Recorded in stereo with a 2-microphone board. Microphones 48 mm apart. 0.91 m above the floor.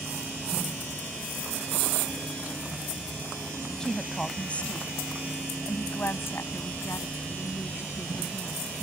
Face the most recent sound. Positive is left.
turn(degrees=80)